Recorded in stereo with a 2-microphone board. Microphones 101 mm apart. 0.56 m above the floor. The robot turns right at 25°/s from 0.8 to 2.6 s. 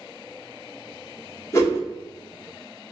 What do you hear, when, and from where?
1.5 s a whoosh: 30° left (ahead or behind), 1.0 m